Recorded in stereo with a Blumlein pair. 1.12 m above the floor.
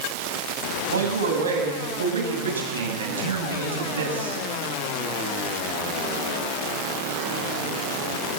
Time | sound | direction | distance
0.9 | a man speaking | 70° right | 7 m